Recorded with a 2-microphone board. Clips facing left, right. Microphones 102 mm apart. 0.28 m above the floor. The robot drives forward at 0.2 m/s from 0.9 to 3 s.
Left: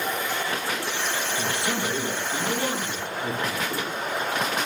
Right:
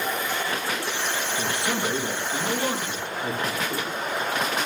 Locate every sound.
1.4 s a man speaking: 25° right (ahead or behind), 3.5 m